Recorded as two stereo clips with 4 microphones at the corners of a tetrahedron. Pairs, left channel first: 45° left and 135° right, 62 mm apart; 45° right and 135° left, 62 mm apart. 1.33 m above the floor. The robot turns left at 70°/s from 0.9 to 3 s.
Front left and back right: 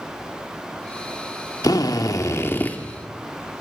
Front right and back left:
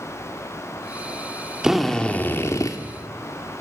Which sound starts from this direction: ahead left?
A drill, at 1.6 s.